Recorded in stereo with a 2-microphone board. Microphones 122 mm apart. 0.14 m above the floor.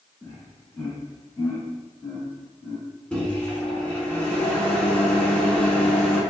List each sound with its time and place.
0.2 s laughter: 20° left (ahead or behind), 1.3 m; by 2.8 s 10° left (ahead or behind), 2.5 m
3.1 s a microwave: 10° left (ahead or behind), 1.1 m